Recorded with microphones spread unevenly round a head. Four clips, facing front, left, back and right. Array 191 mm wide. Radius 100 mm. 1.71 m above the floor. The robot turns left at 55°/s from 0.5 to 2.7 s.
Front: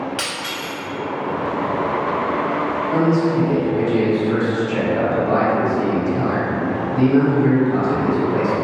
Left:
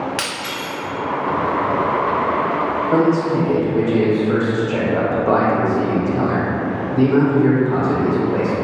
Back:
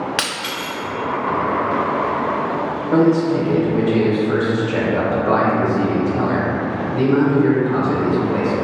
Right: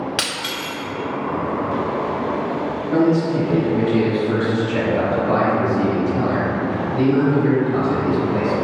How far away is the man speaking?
About 1.0 m.